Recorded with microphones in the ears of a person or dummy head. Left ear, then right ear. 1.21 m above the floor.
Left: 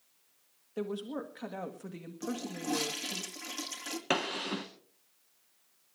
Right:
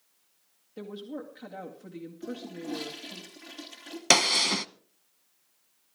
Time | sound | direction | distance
0.8 | a woman speaking | 35° left (ahead or behind) | 1.9 m
2.2 | a toilet flushing | 60° left (ahead or behind) | 2.5 m
4.1 | a gunshot | 75° right (ahead or behind) | 0.8 m